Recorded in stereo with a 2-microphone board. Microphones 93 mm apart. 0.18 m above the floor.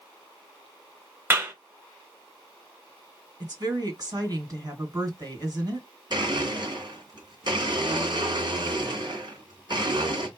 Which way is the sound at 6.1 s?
50° right (ahead or behind).